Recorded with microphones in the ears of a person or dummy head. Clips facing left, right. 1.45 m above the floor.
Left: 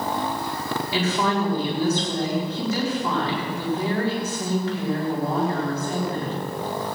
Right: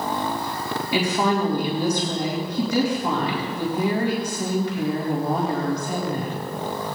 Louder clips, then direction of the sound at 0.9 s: Right 2 dB; 15° right (ahead or behind).